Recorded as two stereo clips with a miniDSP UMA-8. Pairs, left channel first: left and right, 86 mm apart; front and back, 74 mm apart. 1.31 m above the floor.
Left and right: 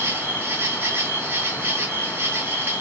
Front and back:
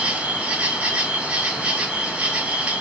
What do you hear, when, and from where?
0.0 s an insect: 120° right, 0.7 m